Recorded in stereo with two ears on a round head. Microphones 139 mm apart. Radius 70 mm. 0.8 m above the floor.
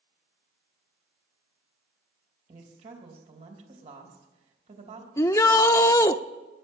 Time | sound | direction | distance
2.5 | a woman speaking | 40° right (ahead or behind) | 3 m
5.2 | a shout | 20° left (ahead or behind) | 0.5 m